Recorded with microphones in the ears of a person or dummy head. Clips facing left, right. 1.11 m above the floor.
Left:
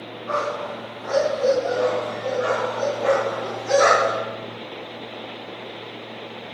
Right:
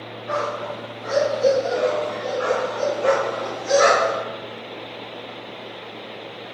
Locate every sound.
0.3 s a dog barking: 15° right (ahead or behind), 3.5 m; by 4.2 s 45° right (ahead or behind), 6 m